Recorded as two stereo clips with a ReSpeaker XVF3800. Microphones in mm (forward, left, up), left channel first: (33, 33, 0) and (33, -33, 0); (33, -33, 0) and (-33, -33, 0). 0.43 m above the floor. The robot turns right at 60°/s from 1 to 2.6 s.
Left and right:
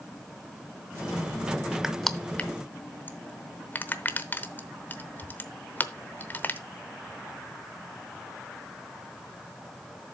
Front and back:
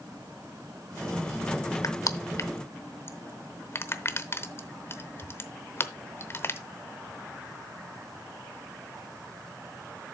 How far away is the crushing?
About 0.8 m.